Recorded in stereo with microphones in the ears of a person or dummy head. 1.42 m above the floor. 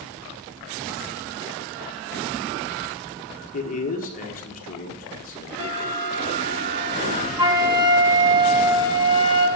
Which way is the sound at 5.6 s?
65° right (ahead or behind).